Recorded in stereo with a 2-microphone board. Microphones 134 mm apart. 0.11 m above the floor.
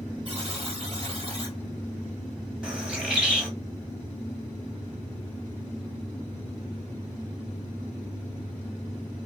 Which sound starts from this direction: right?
A buzzer, at 0.2 s.